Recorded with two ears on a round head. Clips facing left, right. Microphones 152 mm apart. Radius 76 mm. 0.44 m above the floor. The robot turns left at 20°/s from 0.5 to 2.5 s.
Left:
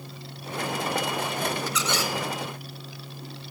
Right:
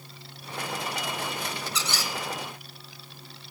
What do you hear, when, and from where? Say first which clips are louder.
1.7 s a squeak: left 5 dB; 25° right (ahead or behind), 0.8 m; by 2.1 s 35° right (ahead or behind), 0.8 m